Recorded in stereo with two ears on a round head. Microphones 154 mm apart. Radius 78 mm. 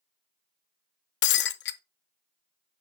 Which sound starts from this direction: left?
Breaking glass, at 1.2 s.